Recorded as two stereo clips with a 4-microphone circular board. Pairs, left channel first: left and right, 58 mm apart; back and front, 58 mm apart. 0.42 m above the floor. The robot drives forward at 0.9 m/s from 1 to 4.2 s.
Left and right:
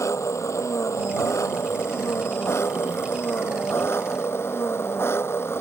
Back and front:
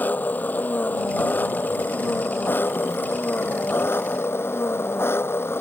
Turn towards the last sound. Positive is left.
turn(degrees=135)